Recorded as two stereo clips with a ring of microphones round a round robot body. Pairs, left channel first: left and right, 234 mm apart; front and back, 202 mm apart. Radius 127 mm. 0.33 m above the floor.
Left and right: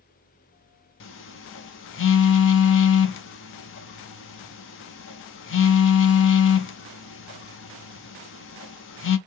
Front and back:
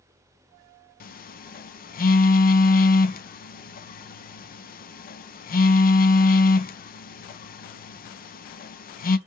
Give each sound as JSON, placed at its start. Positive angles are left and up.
{"t": 1.0, "sound": "a phone buzzing", "azimuth_deg": 50, "distance_m": 0.6}